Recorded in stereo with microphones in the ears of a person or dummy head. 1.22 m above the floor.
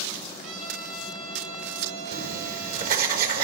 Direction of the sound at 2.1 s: 50° right (ahead or behind).